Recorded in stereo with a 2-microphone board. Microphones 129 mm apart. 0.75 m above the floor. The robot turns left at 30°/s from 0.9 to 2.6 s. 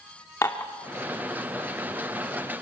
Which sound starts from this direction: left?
Dishes clattering, at 0.4 s.